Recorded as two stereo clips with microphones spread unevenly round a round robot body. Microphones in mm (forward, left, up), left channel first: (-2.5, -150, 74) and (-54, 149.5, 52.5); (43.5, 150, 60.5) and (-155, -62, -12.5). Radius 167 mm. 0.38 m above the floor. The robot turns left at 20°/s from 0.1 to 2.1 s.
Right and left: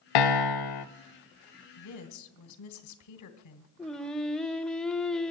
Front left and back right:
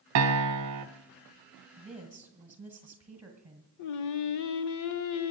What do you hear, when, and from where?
0.1 s a piano: 85° right, 0.6 m; by 0.8 s 100° right, 0.6 m
1.8 s a woman speaking: 50° right, 1.7 m; by 3.7 s 55° right, 1.7 m
3.8 s singing: 10° left, 0.5 m